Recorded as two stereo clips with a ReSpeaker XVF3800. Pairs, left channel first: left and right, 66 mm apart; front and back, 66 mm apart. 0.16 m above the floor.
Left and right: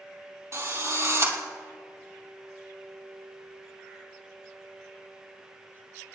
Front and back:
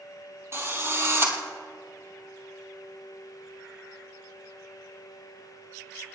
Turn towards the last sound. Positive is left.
turn(degrees=-130)